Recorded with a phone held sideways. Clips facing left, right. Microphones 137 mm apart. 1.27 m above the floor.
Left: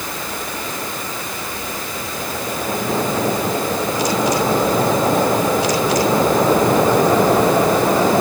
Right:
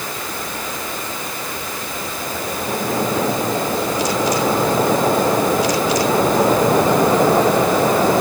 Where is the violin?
No violin in this recording.